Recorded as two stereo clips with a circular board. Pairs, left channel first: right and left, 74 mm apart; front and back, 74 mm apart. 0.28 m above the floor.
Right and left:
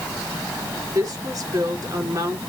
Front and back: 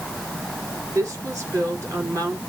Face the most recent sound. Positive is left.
turn(degrees=135)